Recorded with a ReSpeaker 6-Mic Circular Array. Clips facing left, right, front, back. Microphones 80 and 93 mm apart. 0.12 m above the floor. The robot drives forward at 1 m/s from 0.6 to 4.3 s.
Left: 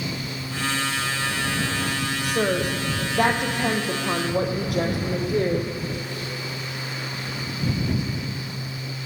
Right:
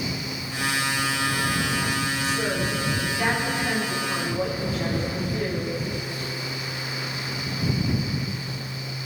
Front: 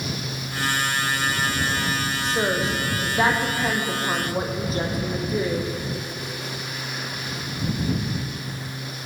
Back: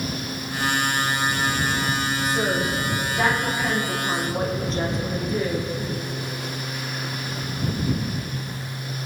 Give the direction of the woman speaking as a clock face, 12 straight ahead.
10 o'clock.